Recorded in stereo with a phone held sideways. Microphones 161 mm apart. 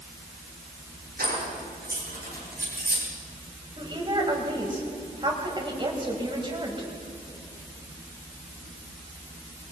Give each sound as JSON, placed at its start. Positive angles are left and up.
{"t": 1.2, "sound": "keys jangling", "side_deg": -70, "distance_m": 10.0}
{"t": 3.8, "sound": "a woman speaking", "side_deg": -30, "distance_m": 4.5}